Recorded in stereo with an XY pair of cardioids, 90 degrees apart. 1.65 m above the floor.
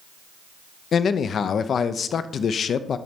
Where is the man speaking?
60° left, 0.6 m.